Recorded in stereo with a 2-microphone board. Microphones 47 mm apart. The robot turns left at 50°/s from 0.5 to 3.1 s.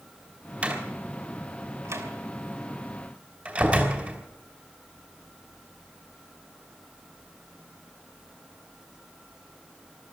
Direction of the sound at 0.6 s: 25° right (ahead or behind).